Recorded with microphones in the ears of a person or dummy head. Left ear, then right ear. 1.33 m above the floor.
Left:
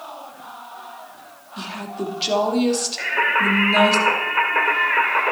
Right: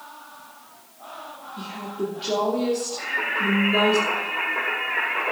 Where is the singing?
65° left (ahead or behind), 2.0 m.